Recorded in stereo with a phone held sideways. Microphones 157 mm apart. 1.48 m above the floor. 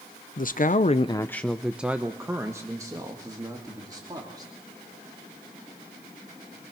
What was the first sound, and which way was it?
A man speaking, 55° left (ahead or behind).